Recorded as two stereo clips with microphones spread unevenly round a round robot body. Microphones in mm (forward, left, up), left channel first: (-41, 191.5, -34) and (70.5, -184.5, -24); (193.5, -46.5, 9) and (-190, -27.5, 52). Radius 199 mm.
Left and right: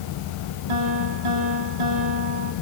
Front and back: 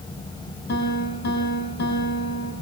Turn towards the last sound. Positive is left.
turn(degrees=-70)